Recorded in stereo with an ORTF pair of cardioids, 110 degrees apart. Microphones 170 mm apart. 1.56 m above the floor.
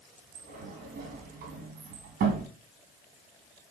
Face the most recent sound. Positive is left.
turn(degrees=-60)